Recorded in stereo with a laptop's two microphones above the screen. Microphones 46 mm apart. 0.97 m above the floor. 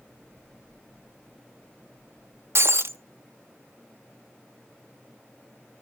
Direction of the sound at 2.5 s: 60° right (ahead or behind).